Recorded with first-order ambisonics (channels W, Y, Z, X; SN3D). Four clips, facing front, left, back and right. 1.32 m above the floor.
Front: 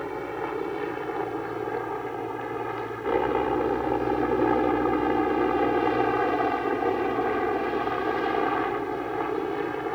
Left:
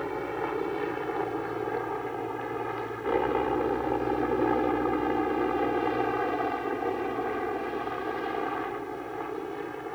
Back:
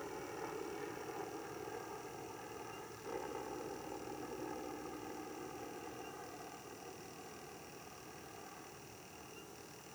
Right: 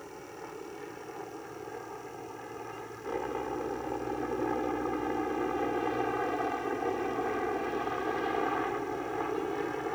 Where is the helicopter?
45° left; by 10.0 s 10° right.